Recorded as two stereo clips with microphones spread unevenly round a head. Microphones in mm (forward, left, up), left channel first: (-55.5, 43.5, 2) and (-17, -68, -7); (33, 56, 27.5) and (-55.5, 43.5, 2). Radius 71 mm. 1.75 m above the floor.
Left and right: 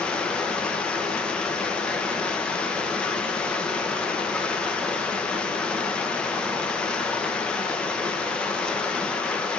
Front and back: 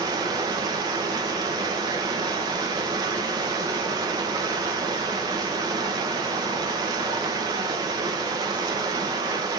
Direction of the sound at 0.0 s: 170° left.